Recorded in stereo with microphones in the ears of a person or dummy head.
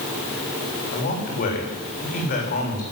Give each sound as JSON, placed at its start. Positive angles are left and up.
{"t": 0.9, "sound": "a man speaking", "side_deg": 50, "distance_m": 3.5}